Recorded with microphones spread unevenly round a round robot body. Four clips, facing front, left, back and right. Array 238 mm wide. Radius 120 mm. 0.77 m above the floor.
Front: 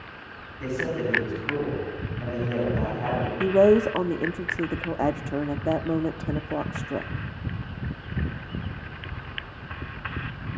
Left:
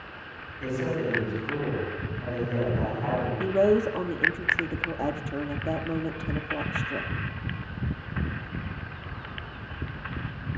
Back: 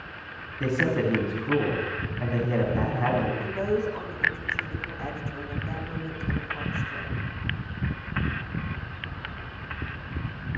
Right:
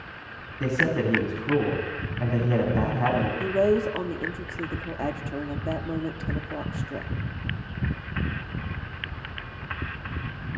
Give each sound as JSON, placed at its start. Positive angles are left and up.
{"t": 0.6, "sound": "a man speaking", "azimuth_deg": -120, "distance_m": 8.0}
{"t": 3.4, "sound": "a woman speaking", "azimuth_deg": 5, "distance_m": 1.3}